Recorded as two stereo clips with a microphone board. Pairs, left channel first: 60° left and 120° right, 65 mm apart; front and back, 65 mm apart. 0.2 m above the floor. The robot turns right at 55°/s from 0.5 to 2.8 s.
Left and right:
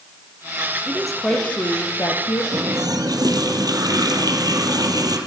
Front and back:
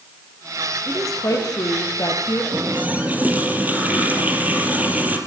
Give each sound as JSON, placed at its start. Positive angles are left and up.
{"t": 0.9, "sound": "a woman speaking", "azimuth_deg": -40, "distance_m": 5.0}
{"t": 2.5, "sound": "a running tap", "azimuth_deg": -130, "distance_m": 4.0}